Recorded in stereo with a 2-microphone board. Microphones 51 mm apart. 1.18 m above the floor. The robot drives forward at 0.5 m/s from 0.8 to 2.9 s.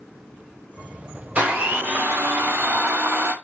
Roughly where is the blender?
Right.